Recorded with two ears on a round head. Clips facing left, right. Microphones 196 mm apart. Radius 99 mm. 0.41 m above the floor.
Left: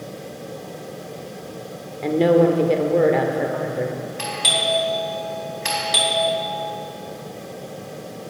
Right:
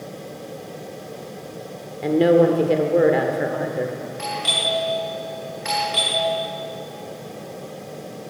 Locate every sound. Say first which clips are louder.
2.0 s a woman speaking: right 1 dB; 5° right (ahead or behind), 1.0 m
4.2 s a doorbell: left 2 dB; 45° left (ahead or behind), 3.5 m